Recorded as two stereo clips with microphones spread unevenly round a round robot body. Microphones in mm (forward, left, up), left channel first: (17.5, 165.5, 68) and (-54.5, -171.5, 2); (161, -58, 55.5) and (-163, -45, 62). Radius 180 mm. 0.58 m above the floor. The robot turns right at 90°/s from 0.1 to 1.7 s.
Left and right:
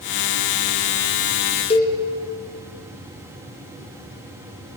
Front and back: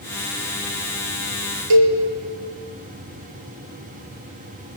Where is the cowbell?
150° left, 3 m.